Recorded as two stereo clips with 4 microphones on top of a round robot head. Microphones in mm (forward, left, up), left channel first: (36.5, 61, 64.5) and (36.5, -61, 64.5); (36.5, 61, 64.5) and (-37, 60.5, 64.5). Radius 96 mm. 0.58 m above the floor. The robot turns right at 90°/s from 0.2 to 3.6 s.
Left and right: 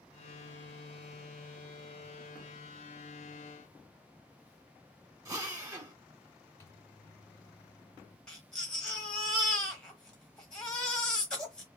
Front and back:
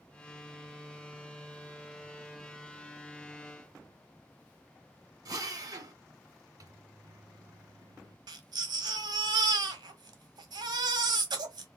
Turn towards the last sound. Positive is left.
turn(degrees=175)